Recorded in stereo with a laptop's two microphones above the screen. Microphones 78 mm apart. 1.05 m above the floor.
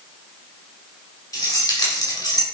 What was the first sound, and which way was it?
Keys jangling, 45° left (ahead or behind).